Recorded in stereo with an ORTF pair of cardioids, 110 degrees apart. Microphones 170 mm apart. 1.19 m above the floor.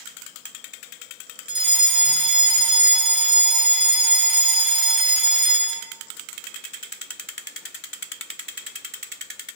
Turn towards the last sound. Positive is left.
turn(degrees=-30)